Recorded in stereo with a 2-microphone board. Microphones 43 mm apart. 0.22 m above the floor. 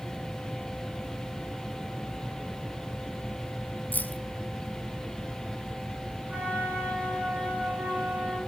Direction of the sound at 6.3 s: 45° right (ahead or behind).